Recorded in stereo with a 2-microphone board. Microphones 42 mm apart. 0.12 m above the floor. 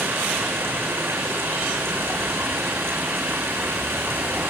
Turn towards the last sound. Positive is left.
turn(degrees=-80)